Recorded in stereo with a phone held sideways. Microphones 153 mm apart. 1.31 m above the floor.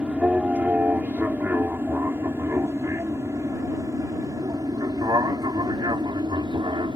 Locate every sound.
0.0 s an aircraft: 10° right (ahead or behind); by 7.0 s 30° right (ahead or behind)